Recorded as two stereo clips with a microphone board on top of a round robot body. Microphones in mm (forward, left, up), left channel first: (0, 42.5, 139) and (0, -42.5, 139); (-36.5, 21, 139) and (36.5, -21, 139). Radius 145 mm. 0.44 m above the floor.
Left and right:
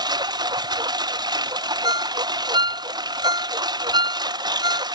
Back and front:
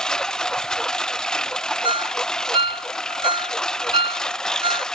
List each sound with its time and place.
0.0 s a lawn mower: 125° right
1.8 s a ringtone: 55° right